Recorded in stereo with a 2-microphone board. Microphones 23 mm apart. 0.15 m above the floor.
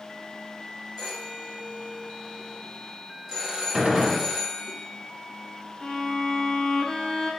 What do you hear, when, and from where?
1.0 s a phone ringing: 5° left (ahead or behind), 1.6 m
3.7 s a gunshot: 30° right (ahead or behind), 1.3 m
5.8 s a violin: 25° left (ahead or behind), 0.8 m